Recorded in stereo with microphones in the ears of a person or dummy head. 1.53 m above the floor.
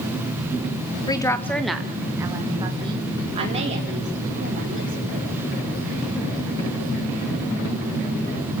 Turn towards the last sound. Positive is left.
turn(degrees=-45)  # may be behind; listen again after turning